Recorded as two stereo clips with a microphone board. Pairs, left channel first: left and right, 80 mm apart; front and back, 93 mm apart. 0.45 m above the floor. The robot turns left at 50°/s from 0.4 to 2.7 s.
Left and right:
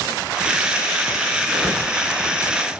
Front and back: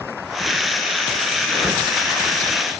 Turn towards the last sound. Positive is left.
turn(degrees=35)